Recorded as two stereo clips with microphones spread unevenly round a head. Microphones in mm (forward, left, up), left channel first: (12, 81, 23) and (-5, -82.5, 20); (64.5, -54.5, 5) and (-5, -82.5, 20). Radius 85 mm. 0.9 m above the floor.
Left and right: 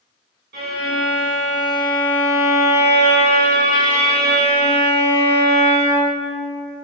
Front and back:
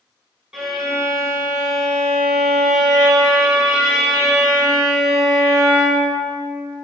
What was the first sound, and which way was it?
A violin, 70° right.